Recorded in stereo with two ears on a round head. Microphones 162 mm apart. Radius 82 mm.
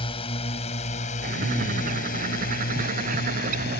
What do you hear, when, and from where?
0.0 s a drone: 30° left (ahead or behind); by 3.8 s 65° left (ahead or behind)
1.2 s a bird: 50° right (ahead or behind)